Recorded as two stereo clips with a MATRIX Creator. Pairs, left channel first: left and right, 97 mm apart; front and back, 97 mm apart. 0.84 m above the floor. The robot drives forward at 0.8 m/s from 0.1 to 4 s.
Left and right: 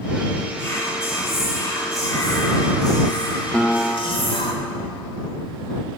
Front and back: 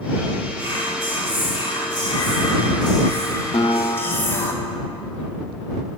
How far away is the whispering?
About 3.5 m.